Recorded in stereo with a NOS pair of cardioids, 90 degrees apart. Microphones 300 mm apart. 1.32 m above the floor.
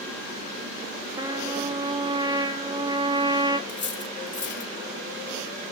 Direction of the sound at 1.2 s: 15° right.